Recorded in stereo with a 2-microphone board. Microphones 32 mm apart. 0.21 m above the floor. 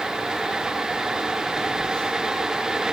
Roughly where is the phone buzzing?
Left.